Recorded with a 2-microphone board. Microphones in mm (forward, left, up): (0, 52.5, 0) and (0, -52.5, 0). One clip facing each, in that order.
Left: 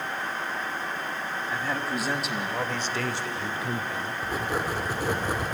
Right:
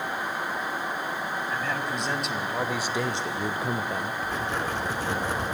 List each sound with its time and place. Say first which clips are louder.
1.5 s a man speaking: left 3 dB; 10° left (ahead or behind), 2 m; by 4.1 s 30° right (ahead or behind), 1.3 m
4.2 s writing: even; 10° left (ahead or behind), 2 m